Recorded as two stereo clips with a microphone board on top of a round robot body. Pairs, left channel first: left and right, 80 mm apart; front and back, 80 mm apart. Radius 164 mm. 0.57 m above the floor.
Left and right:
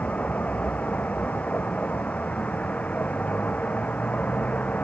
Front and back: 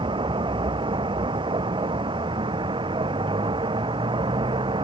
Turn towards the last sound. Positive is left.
turn(degrees=165)